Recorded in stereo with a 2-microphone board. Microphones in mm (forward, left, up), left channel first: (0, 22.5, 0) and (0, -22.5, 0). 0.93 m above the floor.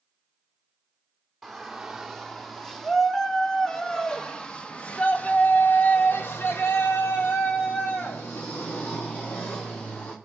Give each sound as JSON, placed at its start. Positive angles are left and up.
{"t": 1.4, "sound": "a shout", "side_deg": 0, "distance_m": 3.0}